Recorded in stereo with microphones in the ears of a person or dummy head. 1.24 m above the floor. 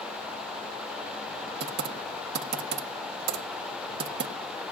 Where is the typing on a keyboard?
55° right (ahead or behind), 1.3 m.